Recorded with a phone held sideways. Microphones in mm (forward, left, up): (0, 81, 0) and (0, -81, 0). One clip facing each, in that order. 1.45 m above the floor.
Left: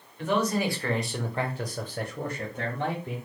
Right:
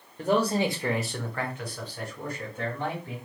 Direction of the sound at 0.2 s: 40° right (ahead or behind).